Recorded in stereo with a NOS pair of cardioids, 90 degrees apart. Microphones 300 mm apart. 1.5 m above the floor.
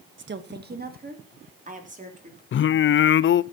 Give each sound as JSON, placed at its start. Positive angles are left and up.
{"t": 0.2, "sound": "a woman speaking", "azimuth_deg": -40, "distance_m": 1.7}
{"t": 2.5, "sound": "singing", "azimuth_deg": 45, "distance_m": 0.6}